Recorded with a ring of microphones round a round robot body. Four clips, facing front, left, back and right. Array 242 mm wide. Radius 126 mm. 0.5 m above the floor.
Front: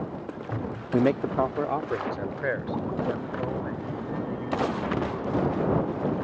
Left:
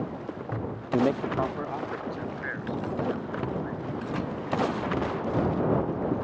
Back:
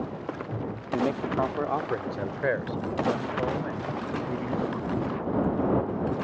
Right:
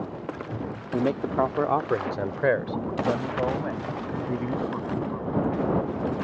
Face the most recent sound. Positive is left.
turn(degrees=-100)